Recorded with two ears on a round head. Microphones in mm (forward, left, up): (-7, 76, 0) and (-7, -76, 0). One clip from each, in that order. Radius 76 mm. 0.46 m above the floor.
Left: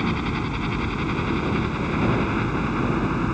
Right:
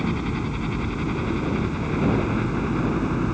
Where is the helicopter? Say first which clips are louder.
Left 2 dB; 30° left (ahead or behind); by 3.3 s 25° left (ahead or behind).